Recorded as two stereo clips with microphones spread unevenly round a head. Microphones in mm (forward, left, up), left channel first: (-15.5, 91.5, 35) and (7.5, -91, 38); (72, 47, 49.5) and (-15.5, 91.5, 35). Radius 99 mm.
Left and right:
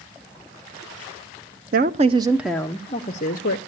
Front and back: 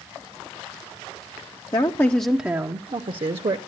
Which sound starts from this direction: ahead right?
A woman speaking, at 1.7 s.